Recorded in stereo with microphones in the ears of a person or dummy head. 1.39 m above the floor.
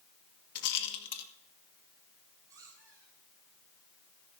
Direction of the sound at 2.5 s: 20° right (ahead or behind).